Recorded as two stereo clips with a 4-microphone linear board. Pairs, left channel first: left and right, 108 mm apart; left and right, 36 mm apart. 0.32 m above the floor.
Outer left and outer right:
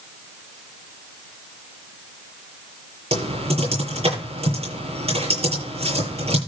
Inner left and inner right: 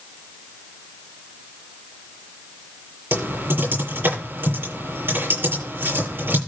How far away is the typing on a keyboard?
About 9 m.